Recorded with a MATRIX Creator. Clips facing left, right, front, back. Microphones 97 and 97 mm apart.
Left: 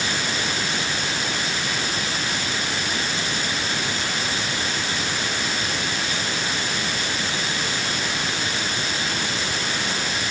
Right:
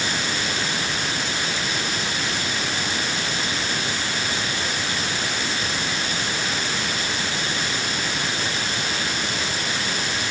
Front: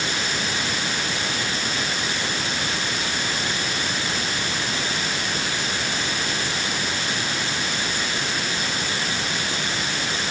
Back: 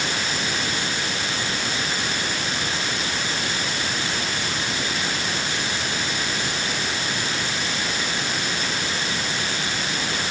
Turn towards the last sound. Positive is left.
No sound to turn to.